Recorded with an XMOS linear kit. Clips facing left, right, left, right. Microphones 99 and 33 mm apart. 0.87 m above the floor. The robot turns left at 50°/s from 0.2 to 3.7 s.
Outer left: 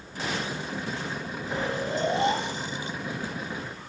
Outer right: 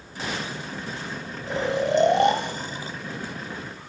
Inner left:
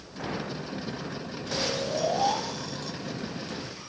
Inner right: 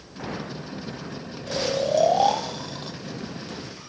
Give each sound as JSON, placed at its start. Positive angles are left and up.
{"t": 1.5, "sound": "snoring", "azimuth_deg": -70, "distance_m": 1.1}